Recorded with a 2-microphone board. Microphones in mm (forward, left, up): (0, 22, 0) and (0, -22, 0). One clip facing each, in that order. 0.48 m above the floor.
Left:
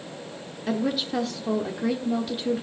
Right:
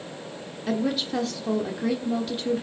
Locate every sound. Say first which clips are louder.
0.7 s a woman speaking: even; 5° left (ahead or behind), 1.1 m